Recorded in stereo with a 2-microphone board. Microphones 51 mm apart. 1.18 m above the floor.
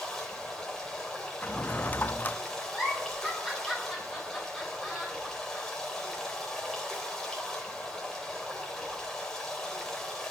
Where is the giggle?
Centre (ahead or behind), 9.5 m.